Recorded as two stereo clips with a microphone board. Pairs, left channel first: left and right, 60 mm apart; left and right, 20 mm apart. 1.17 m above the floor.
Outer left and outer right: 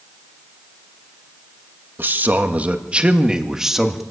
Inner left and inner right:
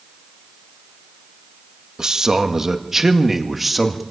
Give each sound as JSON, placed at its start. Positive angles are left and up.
{"t": 2.0, "sound": "a man speaking", "side_deg": -35, "distance_m": 1.7}